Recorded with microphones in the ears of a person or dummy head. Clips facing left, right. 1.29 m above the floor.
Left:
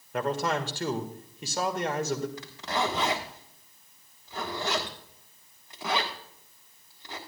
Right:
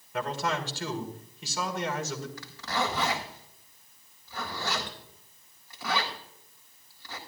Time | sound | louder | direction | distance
0.1 | a man speaking | left 3 dB | 40° left (ahead or behind) | 1.7 m
2.4 | a zipper | left 1 dB | 20° left (ahead or behind) | 1.6 m